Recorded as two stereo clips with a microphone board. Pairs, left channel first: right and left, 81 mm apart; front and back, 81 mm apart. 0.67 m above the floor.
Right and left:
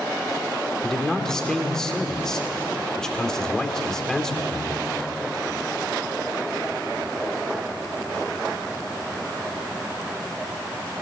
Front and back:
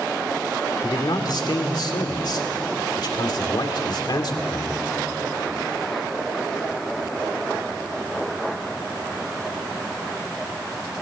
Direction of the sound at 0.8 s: 10° right.